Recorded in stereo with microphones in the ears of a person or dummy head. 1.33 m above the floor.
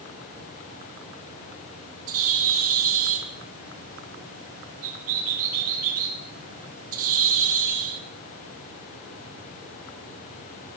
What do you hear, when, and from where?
2.1 s a bird: 45° right (ahead or behind), 0.7 m